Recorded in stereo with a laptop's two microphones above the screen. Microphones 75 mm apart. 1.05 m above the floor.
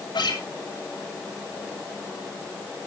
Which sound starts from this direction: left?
A guitar, at 0.1 s.